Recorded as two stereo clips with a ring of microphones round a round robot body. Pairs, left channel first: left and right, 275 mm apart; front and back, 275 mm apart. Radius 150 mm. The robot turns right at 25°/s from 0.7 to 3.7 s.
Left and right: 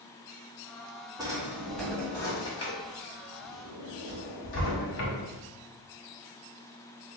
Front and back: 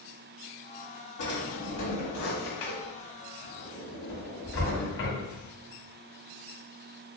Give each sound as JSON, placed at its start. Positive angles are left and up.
{"t": 1.2, "sound": "a drawer", "azimuth_deg": -15, "distance_m": 1.6}